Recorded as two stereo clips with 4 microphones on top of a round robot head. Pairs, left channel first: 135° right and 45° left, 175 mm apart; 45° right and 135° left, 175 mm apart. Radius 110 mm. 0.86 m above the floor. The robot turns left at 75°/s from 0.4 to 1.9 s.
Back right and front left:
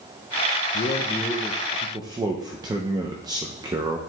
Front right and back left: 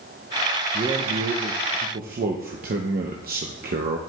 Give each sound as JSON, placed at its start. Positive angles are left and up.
{"t": 0.7, "sound": "a man speaking", "azimuth_deg": -165, "distance_m": 0.8}